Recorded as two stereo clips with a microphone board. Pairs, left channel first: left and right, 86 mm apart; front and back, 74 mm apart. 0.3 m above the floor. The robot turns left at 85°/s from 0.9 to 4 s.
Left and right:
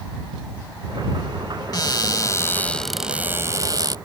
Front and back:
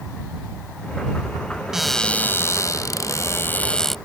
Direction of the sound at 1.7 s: 100° left.